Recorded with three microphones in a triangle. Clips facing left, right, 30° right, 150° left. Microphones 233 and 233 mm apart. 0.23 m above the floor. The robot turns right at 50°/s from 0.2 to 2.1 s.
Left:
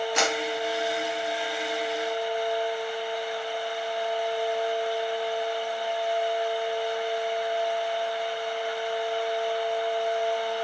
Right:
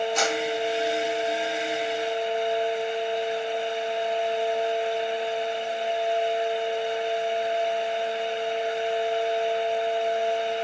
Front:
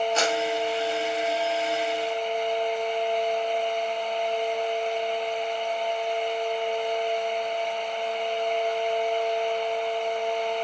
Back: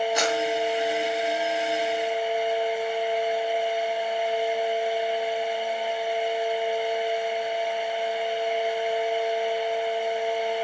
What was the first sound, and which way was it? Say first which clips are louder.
A clap: right 1 dB, even; 75° left.